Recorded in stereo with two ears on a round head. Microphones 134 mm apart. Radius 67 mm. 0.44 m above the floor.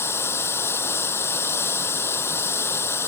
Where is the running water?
15° left (ahead or behind).